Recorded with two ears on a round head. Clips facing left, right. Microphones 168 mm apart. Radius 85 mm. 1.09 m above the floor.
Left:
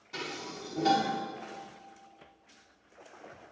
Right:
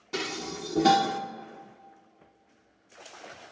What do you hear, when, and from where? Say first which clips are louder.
0.1 s dishes clattering: right 6 dB; 65° right (ahead or behind), 0.5 m